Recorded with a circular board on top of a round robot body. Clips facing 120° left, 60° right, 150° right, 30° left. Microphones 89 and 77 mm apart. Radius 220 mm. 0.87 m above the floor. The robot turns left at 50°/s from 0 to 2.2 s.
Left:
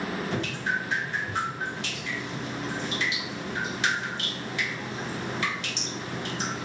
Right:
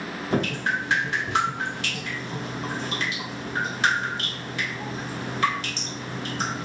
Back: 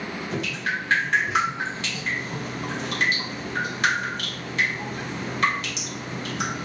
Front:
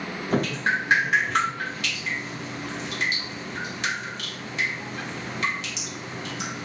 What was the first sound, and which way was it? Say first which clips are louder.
Dripping: right 8 dB, front 6 dB; 15° right.